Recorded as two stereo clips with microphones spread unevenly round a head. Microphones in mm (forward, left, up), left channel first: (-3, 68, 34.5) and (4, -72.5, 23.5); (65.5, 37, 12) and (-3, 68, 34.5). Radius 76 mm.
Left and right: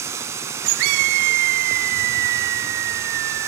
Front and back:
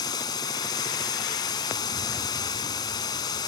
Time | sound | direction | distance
0.0 | running water | 20° right | 1.6 m